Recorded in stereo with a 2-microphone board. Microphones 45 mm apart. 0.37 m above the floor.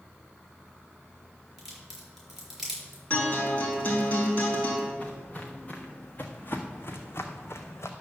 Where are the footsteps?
20° left (ahead or behind), 2.5 m; by 7.9 s 80° left, 1.6 m.